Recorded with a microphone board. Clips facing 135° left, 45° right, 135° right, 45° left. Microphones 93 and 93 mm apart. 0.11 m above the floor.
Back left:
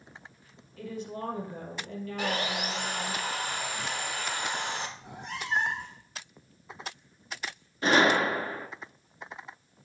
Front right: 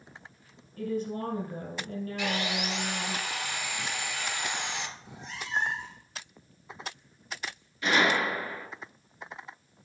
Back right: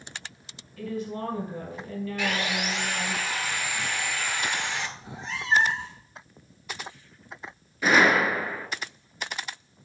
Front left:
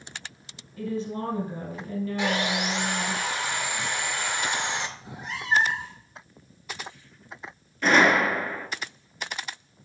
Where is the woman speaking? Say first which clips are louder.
Front right 5 dB, front left 2 dB; 10° right, 1.9 m.